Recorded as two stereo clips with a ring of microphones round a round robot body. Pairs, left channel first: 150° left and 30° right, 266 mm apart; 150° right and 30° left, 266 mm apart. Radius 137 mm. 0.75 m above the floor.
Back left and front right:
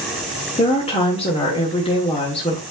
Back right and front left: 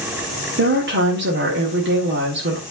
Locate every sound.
0.6 s a woman speaking: 80° left, 1.6 m